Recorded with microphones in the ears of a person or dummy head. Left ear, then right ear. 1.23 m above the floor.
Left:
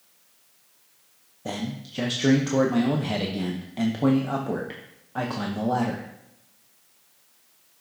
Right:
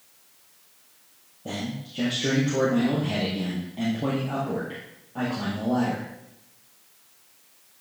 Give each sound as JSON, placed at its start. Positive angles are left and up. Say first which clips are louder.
{"t": 1.4, "sound": "a man speaking", "louder": "left 1 dB", "side_deg": 60, "distance_m": 0.7}